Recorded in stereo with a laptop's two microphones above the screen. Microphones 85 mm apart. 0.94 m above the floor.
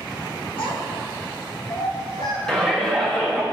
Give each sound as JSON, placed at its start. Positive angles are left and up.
{"t": 0.6, "sound": "a child speaking", "side_deg": 75, "distance_m": 1.7}
{"t": 2.5, "sound": "a shout", "side_deg": 10, "distance_m": 1.1}